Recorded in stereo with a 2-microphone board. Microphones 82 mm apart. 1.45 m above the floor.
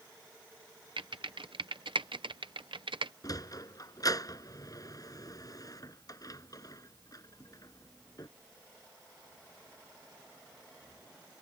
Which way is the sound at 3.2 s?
45° left (ahead or behind).